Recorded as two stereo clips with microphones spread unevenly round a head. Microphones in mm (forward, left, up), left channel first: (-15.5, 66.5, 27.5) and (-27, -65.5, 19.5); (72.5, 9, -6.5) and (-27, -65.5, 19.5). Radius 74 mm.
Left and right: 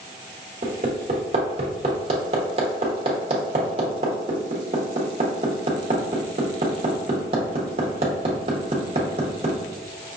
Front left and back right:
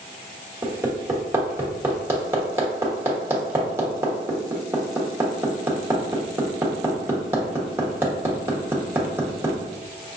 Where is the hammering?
105° right, 1.1 m.